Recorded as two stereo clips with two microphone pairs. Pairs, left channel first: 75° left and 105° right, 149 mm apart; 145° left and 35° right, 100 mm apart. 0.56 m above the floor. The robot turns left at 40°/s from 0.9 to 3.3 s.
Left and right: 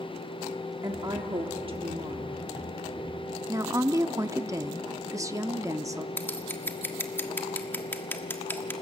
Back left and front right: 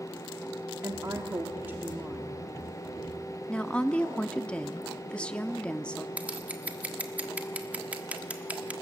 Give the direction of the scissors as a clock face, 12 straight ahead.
11 o'clock.